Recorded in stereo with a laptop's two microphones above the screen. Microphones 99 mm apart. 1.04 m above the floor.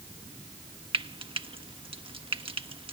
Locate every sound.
0.9 s frying: 60° right (ahead or behind)